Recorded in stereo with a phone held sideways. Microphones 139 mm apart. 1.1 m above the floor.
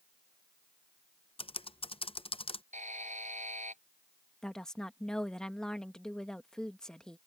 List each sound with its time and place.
1.4 s typing on a keyboard: 40° left (ahead or behind)
2.7 s a buzzer: 60° right (ahead or behind)
4.4 s a woman speaking: 5° left (ahead or behind)